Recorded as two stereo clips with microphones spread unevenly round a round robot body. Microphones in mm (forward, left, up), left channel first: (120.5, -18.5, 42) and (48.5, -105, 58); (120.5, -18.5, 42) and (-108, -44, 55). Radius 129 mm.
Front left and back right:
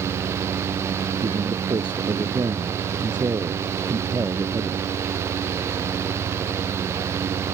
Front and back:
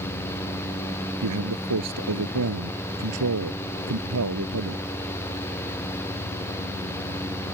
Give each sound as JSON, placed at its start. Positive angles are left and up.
{"t": 1.2, "sound": "a man speaking", "azimuth_deg": 165}